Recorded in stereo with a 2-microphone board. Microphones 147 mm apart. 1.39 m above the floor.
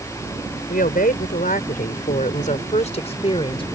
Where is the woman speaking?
85° left; by 3.7 s 35° left (ahead or behind).